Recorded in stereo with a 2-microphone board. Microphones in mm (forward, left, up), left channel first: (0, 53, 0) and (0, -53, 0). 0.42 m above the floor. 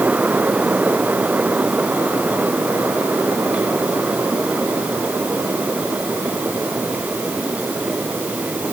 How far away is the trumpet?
No trumpet in this recording.